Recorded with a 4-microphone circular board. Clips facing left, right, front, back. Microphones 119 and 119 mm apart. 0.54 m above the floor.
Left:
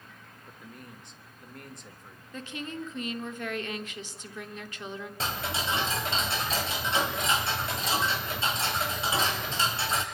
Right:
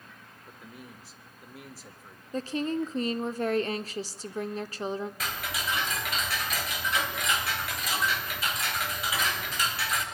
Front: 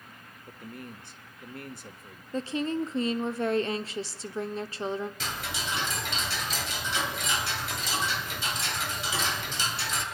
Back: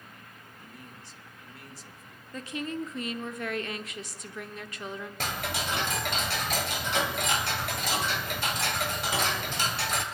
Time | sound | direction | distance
0.5 | a man speaking | 5° right | 1.3 m
2.3 | a woman speaking | 50° right | 0.9 m
5.2 | ticking | 150° left | 2.5 m